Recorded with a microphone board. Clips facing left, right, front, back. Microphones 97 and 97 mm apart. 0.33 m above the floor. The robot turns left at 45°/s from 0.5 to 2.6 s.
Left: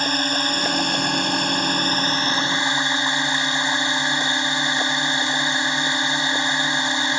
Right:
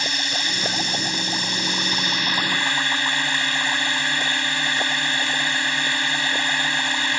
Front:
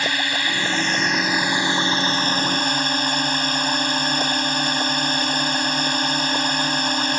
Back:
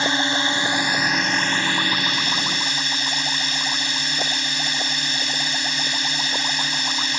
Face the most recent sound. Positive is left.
turn(degrees=25)